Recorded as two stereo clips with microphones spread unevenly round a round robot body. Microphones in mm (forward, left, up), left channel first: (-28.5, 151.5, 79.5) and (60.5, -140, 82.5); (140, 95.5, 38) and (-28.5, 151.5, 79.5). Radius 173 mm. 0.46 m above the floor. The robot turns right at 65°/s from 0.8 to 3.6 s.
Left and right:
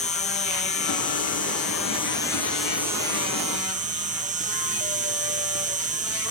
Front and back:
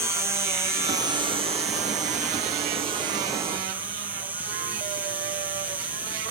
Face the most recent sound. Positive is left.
turn(degrees=-100)